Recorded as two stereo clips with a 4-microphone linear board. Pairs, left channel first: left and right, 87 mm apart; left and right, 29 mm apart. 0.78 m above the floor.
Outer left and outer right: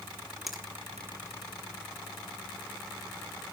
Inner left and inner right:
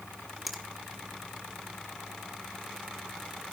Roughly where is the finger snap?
Centre.